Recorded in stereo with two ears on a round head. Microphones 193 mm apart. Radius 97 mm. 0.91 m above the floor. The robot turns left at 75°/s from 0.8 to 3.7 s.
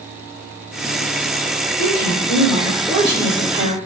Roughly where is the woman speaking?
Left.